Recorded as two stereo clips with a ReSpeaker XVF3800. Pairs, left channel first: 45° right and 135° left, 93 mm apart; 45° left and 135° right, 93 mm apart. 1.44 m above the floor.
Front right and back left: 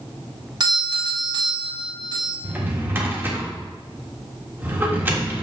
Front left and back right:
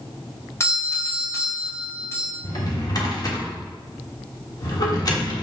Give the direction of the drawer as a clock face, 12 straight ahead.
10 o'clock.